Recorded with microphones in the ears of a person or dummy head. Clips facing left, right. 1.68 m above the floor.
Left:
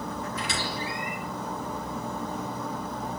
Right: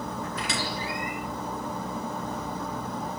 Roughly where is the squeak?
Right.